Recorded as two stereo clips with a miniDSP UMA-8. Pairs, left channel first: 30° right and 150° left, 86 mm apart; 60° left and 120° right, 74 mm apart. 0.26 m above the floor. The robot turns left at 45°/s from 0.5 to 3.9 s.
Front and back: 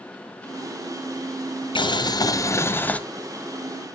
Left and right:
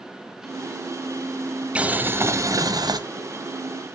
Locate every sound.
1.8 s boiling: 50° right, 0.6 m; by 3.0 s 105° right, 0.6 m